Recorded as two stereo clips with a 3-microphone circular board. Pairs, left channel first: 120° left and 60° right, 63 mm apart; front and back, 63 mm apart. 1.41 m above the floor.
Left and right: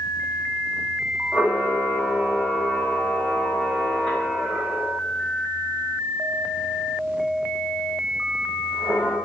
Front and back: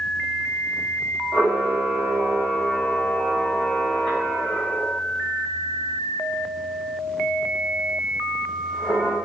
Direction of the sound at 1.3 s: 45° left.